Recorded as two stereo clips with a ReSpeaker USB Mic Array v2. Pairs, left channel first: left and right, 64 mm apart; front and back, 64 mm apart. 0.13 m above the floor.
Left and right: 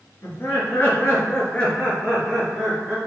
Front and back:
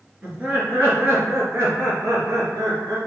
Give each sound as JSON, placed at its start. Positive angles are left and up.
{"t": 0.2, "sound": "laughter", "azimuth_deg": 115, "distance_m": 1.8}